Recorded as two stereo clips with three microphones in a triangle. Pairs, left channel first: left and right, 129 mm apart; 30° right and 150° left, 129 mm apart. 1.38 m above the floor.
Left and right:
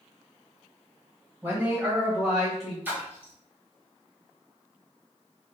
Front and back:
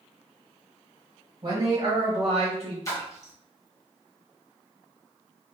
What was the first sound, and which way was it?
A man speaking, 160° right.